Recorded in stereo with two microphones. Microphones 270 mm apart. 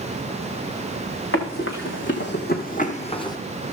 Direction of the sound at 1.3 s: 55° left (ahead or behind).